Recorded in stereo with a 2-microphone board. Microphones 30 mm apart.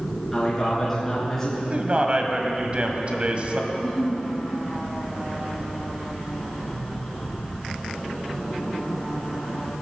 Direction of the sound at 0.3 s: 10° left (ahead or behind).